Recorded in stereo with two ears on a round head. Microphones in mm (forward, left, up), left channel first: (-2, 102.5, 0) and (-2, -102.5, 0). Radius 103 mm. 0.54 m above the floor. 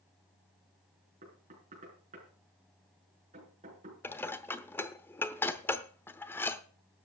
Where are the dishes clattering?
10° left (ahead or behind), 0.8 m.